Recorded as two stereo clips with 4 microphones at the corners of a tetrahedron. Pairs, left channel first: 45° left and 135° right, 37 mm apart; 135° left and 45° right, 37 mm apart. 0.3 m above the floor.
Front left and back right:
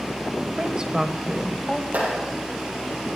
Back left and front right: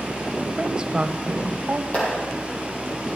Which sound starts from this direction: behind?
A clap, at 1.9 s.